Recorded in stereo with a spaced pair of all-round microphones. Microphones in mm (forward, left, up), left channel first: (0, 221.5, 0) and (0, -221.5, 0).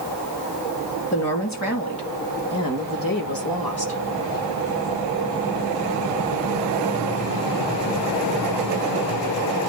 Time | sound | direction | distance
1.1 | a woman speaking | 35° left (ahead or behind) | 3 m